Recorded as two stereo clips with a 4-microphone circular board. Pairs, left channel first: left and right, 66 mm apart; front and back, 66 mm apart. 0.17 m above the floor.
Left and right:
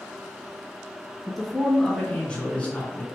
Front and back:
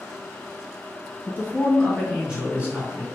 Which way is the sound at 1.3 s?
Straight ahead.